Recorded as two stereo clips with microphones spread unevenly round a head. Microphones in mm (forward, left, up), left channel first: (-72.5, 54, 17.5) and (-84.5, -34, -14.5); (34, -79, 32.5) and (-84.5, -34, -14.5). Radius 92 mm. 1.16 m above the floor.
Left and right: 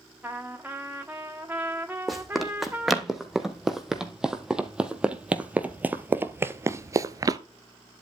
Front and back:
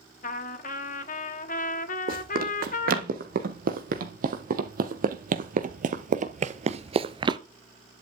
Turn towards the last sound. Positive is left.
turn(degrees=-135)